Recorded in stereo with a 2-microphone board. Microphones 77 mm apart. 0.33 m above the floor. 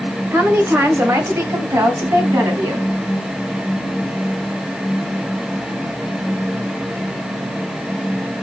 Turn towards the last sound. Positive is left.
turn(degrees=-40)  # may be behind; listen again after turning